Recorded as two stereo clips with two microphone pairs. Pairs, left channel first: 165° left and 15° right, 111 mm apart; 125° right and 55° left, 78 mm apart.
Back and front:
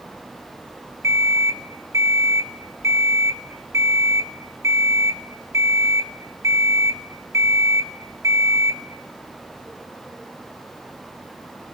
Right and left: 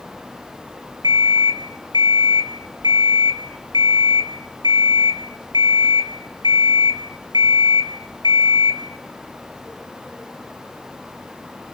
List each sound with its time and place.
1.0 s an alarm clock: 45° left, 1.6 m